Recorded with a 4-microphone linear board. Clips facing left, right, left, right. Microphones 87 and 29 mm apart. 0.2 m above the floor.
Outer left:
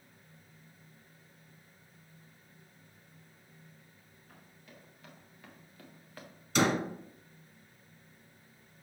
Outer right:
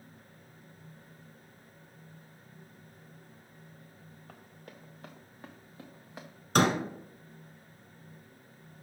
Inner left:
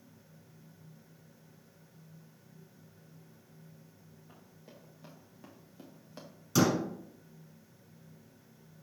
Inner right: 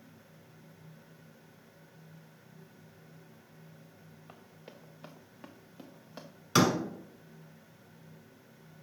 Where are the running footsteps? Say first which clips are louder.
Outer right 3 dB, inner right 4 dB; 55° right (ahead or behind), 1.6 m; by 6.3 s 15° right (ahead or behind), 1.1 m.